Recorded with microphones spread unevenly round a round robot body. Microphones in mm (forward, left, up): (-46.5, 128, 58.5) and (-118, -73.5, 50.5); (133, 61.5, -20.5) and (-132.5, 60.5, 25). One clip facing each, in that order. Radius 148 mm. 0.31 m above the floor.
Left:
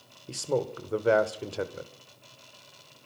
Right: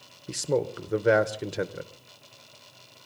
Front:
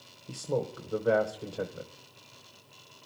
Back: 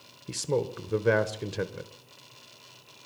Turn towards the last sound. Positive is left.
turn(degrees=-150)